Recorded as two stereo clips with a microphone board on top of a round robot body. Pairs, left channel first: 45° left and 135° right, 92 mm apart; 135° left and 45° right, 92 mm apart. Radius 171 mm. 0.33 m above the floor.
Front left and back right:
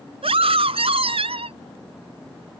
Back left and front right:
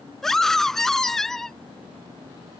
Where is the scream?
140° right.